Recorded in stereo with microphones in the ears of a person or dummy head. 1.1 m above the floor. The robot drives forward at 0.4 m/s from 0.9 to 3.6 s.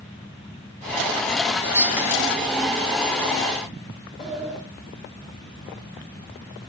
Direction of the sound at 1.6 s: 10° right (ahead or behind).